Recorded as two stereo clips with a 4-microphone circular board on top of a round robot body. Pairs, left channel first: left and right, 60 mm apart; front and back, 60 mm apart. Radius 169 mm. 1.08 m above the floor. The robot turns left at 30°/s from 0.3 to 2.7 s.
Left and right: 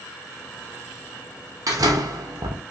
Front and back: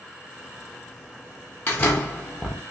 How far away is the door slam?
About 0.7 m.